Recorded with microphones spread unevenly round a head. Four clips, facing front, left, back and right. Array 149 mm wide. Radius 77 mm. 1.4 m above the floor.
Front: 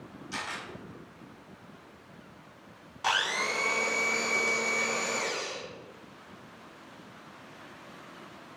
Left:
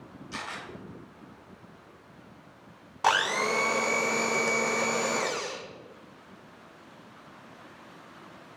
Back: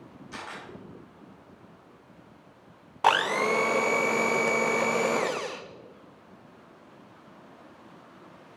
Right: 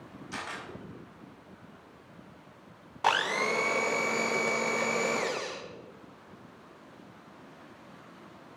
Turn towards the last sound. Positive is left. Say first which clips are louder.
# left 2 dB, back 7 dB
turn(degrees=170)